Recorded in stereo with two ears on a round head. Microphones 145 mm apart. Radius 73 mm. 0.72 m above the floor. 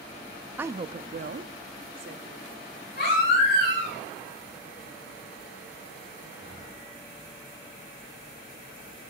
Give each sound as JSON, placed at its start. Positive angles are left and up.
{"t": 0.6, "sound": "a woman speaking", "side_deg": -10, "distance_m": 0.5}
{"t": 3.0, "sound": "a baby crying", "side_deg": 70, "distance_m": 7.5}